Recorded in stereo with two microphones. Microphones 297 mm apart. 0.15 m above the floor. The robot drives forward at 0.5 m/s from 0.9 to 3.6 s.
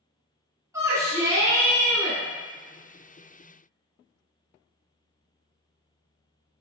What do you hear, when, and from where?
0.7 s a shout: 10° right (ahead or behind), 1.0 m